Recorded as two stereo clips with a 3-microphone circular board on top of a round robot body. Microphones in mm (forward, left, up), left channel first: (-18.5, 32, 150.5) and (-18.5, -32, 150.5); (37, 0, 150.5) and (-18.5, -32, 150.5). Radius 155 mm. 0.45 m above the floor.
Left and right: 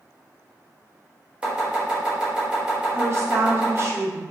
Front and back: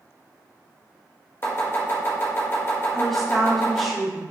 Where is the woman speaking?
55° right, 1.4 m.